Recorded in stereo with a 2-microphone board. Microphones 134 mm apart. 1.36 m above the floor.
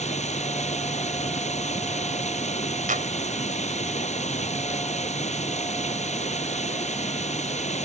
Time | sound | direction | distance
0.0 | running water | 60° left (ahead or behind) | ?
2.9 | a clap | 80° right | ?